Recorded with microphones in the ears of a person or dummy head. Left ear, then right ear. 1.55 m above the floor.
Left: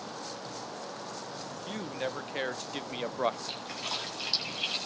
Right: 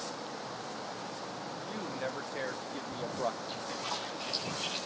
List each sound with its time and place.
1.6 s a man speaking: 80° left, 1.7 m; by 3.4 s 55° left (ahead or behind), 0.7 m
3.5 s a splash: 25° left (ahead or behind), 9 m